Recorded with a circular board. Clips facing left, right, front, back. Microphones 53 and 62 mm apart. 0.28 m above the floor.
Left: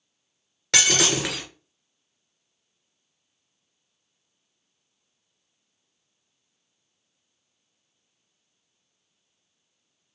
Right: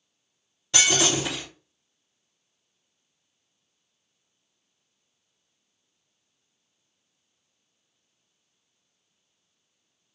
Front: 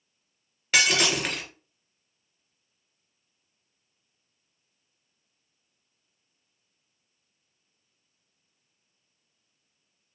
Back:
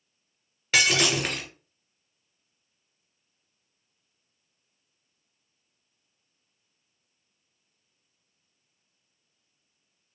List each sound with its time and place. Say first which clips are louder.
0.7 s breaking glass: left 1 dB, even; 90° left, 1.8 m